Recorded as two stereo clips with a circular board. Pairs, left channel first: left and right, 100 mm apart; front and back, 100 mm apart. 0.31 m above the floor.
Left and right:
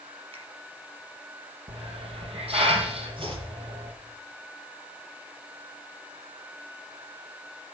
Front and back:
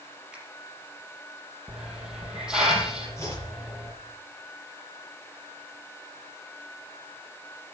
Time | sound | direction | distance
0.3 | a finger snap | 100° right | 5.5 m
1.7 | a hiss | 100° right | 3.5 m
3.2 | chopping | 60° right | 6 m